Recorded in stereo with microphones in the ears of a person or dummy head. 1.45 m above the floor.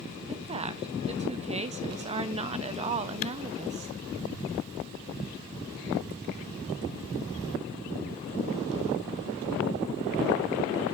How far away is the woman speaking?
About 0.9 m.